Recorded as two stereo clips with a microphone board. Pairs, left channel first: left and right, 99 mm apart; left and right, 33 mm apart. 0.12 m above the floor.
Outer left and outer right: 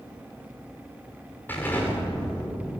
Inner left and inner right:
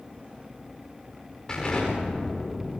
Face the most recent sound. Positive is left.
turn(degrees=20)  # may be behind; listen again after turning